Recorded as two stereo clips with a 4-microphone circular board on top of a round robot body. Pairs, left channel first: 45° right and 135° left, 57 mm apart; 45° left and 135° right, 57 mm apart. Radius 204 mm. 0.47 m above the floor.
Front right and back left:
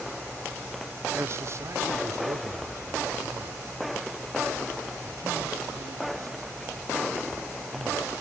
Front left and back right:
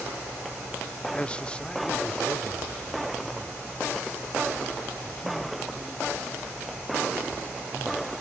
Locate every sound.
1.1 s a man speaking: 110° left; by 8.1 s 125° left